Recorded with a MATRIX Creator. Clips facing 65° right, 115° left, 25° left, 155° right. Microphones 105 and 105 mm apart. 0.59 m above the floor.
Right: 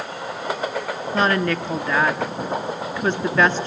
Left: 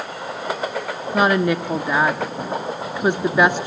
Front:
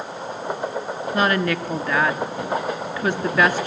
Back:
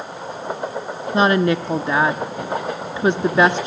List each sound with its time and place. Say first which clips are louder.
1.1 s a woman speaking: left 3 dB, back 5 dB; 170° left, 0.7 m